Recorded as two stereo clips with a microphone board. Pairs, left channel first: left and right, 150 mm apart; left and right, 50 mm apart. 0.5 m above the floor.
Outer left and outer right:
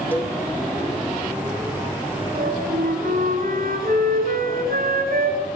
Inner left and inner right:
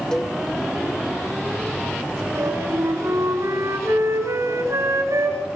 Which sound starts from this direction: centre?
A cowbell, at 0.1 s.